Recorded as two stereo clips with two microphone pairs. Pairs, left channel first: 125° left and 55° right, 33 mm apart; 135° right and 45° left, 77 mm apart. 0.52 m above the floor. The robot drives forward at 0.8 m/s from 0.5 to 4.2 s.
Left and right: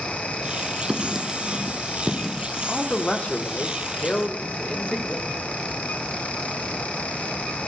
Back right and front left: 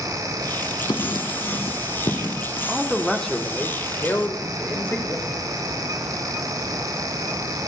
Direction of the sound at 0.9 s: 130° right.